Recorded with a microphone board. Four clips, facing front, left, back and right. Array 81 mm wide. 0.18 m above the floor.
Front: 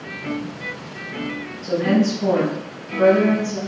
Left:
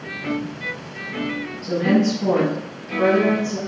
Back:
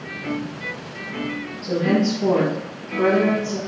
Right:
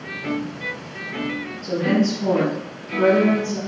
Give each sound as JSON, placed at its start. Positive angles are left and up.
{"t": 1.6, "sound": "a woman speaking", "azimuth_deg": -20, "distance_m": 1.1}